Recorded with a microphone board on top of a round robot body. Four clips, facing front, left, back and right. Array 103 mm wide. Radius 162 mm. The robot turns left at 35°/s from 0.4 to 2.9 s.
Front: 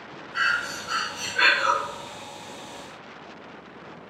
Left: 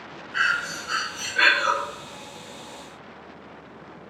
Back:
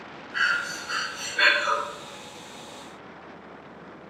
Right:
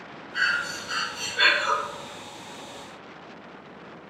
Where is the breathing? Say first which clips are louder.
Left 2 dB, even; 115° left, 1.5 m; by 1.8 s 65° left, 1.5 m.